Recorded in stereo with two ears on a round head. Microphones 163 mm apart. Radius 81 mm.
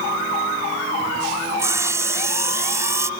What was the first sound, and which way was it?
Sawing, 15° right (ahead or behind).